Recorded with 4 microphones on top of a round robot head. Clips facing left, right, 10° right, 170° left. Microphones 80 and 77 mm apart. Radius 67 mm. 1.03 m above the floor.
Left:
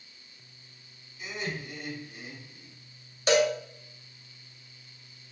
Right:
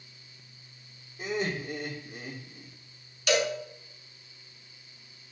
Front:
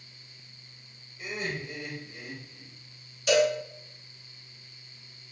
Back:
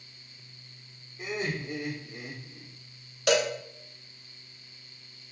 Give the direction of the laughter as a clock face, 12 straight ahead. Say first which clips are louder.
Right 5 dB, back 2 dB; 4 o'clock.